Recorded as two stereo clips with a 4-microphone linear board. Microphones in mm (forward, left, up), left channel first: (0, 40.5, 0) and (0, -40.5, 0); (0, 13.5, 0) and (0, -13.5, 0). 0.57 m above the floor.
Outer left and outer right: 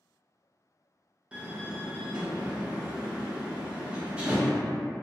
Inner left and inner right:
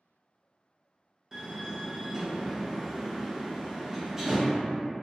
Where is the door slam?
15° right (ahead or behind), 0.5 m.